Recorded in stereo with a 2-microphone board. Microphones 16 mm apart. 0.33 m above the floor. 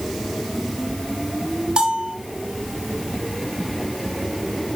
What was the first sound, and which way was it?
A bell, 60° right (ahead or behind).